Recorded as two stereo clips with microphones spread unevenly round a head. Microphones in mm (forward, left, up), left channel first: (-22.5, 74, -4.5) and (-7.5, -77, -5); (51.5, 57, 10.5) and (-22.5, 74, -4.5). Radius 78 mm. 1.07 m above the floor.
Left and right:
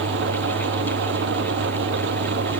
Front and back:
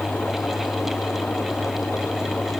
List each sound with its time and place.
0.0 s an engine running: 90° right